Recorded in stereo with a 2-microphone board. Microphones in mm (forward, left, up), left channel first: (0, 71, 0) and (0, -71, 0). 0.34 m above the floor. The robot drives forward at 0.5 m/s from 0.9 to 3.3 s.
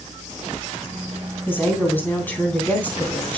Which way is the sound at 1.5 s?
15° left (ahead or behind).